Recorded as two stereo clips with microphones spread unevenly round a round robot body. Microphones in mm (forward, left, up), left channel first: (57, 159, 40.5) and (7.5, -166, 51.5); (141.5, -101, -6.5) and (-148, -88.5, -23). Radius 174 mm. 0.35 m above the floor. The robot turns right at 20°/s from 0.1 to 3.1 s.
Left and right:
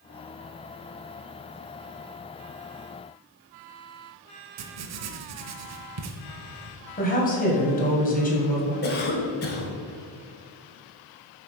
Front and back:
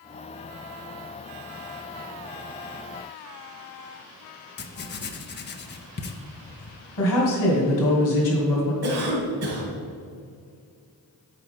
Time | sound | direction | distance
4.6 | writing | 60° right | 0.8 m
7.0 | a woman speaking | 20° left | 2.5 m
8.8 | a cough | 140° left | 1.7 m